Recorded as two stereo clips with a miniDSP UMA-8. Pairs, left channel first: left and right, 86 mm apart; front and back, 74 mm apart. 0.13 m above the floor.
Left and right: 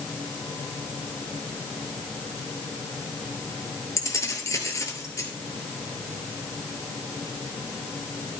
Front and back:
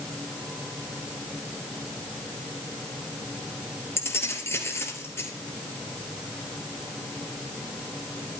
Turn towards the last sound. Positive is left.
turn(degrees=45)